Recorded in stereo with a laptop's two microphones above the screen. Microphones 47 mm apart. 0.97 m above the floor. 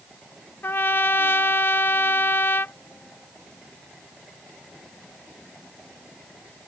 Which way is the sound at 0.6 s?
50° left (ahead or behind).